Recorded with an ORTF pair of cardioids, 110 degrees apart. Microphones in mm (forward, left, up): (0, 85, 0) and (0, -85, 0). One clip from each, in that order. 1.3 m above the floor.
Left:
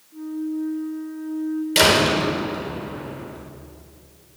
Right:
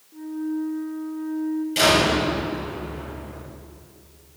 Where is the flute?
15° right, 3.5 m.